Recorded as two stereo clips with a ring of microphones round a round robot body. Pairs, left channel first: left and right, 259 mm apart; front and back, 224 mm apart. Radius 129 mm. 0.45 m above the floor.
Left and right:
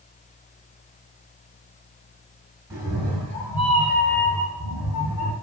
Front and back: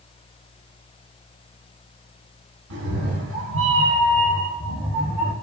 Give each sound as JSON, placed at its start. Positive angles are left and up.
{"t": 2.7, "sound": "a cat meowing", "azimuth_deg": -165, "distance_m": 1.0}